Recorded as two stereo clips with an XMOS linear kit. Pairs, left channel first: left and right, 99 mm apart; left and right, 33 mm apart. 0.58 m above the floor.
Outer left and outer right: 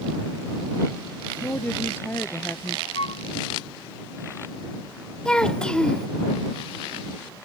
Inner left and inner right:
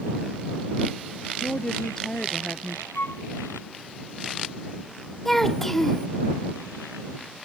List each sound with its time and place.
1.4 s a woman speaking: 20° left (ahead or behind)
3.0 s a flute: 75° left (ahead or behind)
5.2 s a child speaking: 10° left (ahead or behind)